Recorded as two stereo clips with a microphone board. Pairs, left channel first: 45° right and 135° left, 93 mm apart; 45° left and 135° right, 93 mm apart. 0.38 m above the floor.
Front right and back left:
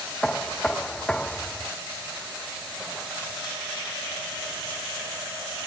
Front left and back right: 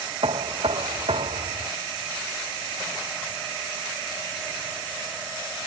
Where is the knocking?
125° right.